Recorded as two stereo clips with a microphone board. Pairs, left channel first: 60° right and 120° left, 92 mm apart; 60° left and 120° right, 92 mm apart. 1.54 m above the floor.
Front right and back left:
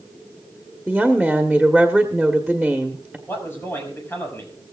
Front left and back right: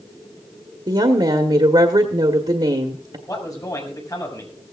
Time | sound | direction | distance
0.9 | a woman speaking | 150° right | 1.4 m
3.3 | a man speaking | 5° left | 6.5 m